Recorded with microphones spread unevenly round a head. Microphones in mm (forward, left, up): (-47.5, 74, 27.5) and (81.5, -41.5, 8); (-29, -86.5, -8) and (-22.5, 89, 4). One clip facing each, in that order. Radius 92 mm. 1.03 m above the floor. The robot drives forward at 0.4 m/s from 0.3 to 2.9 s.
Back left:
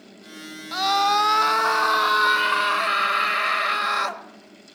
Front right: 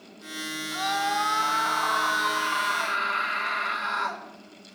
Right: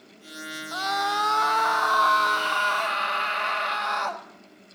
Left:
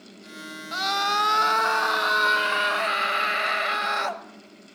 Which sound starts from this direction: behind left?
A scream, at 0.7 s.